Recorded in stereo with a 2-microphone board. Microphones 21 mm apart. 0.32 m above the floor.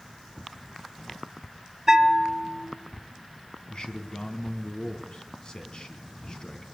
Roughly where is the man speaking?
Left.